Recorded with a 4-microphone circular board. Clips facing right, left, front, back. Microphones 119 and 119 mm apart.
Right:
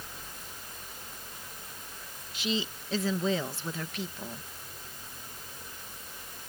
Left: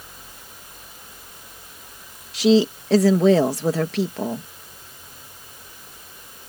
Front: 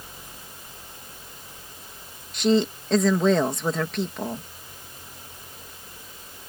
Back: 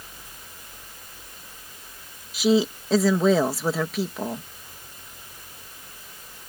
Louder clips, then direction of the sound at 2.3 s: Left 17 dB, back 1 dB; 95° left.